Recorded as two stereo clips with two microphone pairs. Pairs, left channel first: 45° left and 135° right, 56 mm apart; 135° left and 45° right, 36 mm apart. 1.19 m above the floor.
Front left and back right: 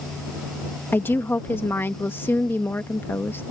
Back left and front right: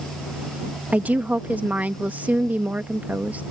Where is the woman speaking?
5° right.